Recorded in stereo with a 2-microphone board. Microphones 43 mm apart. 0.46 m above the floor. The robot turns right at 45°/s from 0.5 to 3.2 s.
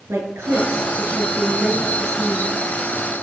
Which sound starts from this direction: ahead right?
A woman speaking, at 0.1 s.